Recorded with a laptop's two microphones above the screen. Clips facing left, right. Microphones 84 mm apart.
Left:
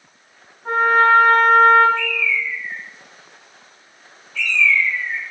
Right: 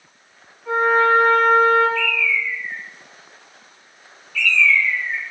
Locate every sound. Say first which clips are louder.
0.7 s a trumpet: left 2 dB; 45° left (ahead or behind), 2.5 m
1.9 s a bird: right 1 dB; 30° left (ahead or behind), 2 m